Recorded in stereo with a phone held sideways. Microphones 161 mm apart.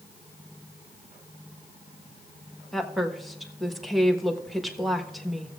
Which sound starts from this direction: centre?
A woman speaking, at 2.7 s.